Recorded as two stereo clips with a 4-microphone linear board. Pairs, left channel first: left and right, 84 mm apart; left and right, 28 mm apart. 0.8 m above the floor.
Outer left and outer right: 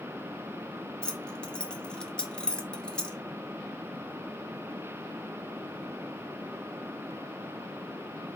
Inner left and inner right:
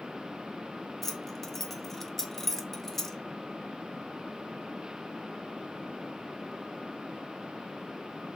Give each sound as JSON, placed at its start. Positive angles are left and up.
{"t": 1.0, "sound": "keys jangling", "side_deg": 10, "distance_m": 0.5}